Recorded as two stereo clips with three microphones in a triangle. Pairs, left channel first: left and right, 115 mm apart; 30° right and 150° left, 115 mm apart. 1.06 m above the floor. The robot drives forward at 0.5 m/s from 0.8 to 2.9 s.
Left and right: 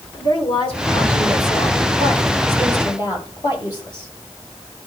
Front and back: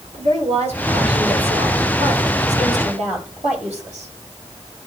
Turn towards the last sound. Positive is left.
turn(degrees=140)